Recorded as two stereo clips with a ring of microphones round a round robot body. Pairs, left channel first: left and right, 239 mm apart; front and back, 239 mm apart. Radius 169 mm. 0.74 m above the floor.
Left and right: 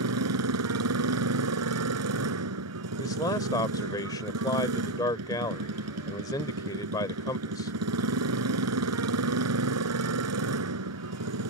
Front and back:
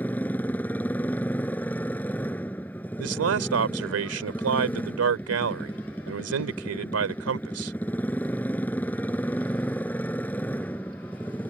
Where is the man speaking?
170° left.